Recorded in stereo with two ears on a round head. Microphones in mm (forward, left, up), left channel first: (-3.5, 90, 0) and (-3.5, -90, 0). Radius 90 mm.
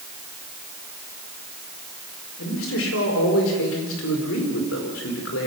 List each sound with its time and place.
2.4 s a man speaking: 75° left (ahead or behind), 5 m